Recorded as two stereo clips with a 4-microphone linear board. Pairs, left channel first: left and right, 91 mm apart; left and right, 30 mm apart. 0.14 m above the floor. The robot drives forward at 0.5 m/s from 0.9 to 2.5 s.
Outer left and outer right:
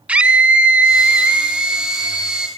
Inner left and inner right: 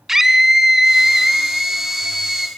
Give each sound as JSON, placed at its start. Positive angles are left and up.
{"t": 0.1, "sound": "a scream", "side_deg": -15, "distance_m": 1.3}